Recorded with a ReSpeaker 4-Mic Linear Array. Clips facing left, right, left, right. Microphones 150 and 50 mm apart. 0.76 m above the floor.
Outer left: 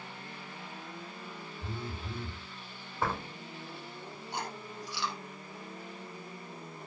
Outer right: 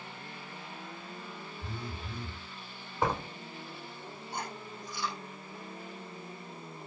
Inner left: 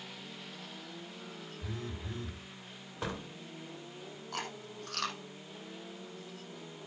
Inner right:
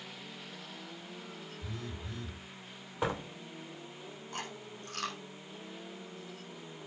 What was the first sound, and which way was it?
A phone buzzing, 25° left (ahead or behind).